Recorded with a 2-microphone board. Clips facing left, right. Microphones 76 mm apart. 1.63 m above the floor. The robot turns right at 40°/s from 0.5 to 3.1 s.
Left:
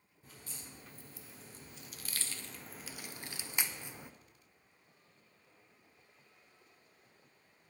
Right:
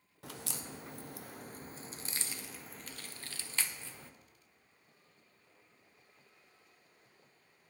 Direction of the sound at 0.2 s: 85° right.